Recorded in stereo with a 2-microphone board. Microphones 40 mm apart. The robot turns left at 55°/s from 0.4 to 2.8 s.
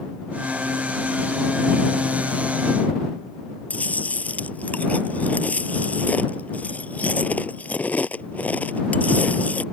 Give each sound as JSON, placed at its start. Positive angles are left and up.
{"t": 3.7, "sound": "chewing", "side_deg": 40}